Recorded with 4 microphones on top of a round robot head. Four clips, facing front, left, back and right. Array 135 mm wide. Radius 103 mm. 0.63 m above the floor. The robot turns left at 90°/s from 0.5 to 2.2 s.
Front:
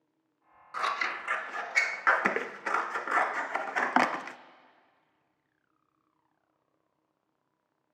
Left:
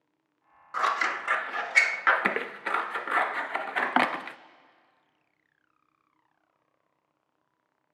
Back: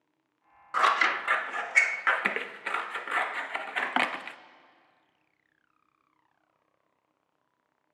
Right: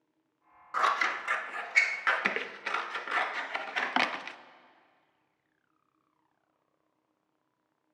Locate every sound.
0.7 s scissors: 175° right, 0.5 m; by 4.4 s 55° left, 0.5 m